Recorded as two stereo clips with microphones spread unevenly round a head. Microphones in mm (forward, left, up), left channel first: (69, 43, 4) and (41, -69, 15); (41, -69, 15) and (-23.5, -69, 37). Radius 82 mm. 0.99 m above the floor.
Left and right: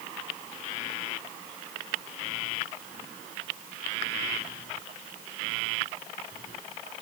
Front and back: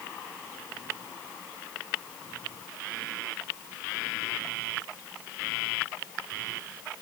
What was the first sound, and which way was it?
Only background noise.